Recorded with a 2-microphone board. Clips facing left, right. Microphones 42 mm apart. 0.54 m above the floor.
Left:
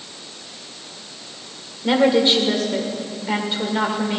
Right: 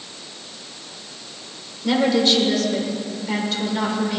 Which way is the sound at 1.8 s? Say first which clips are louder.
Left 2 dB; 25° left (ahead or behind).